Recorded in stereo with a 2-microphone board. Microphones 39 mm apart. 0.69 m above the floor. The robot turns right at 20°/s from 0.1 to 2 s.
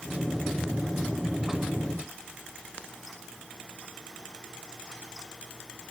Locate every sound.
Only background noise.